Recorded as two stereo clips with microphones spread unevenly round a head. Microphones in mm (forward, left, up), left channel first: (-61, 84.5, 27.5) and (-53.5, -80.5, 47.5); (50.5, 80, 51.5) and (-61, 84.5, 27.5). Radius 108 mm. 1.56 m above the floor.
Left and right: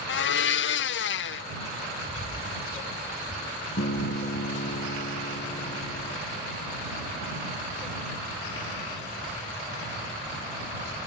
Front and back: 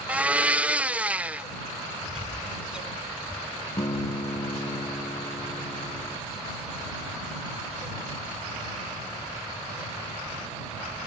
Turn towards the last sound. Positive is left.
turn(degrees=50)